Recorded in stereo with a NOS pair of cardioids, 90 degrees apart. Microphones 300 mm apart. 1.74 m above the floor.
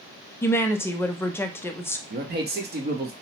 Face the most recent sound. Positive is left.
turn(degrees=-35)